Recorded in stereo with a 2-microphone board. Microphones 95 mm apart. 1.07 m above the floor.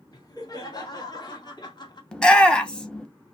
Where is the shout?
10° left (ahead or behind), 0.8 m.